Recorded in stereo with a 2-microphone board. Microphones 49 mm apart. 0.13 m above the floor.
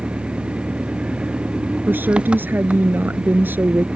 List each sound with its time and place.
0.0 s an engine running: 25° right (ahead or behind)
1.9 s a woman speaking: 50° right (ahead or behind)